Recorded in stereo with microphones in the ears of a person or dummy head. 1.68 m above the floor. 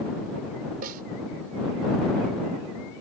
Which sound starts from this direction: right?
A snare drum, at 0.8 s.